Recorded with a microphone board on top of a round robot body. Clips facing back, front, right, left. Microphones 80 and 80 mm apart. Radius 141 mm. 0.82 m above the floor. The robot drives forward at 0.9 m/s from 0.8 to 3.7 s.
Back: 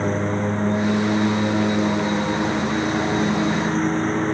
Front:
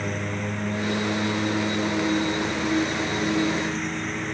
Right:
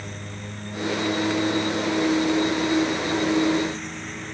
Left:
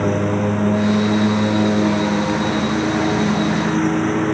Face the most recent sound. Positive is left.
turn(degrees=125)